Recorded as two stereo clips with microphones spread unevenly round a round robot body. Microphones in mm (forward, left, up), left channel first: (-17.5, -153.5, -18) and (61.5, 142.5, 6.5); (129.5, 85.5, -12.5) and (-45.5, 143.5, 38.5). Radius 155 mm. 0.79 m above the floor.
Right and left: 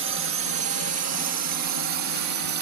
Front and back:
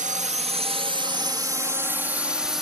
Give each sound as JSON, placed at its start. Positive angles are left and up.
{"t": 0.0, "sound": "a drone", "azimuth_deg": 115}